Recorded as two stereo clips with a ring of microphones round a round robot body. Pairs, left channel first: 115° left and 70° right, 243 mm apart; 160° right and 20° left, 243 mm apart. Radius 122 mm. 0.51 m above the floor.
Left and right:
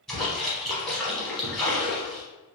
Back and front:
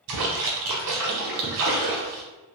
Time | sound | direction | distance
0.1 | a splash | 25° left | 1.1 m